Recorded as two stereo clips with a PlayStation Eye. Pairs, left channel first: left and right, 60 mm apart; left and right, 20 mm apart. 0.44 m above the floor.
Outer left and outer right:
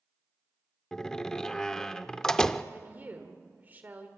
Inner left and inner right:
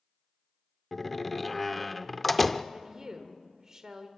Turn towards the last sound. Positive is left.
turn(degrees=-30)  # may be behind; listen again after turning